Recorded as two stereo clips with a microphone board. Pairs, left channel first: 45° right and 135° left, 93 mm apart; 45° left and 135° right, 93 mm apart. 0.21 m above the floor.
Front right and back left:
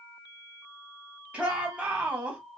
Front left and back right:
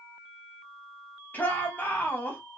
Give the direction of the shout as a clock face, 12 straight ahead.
9 o'clock.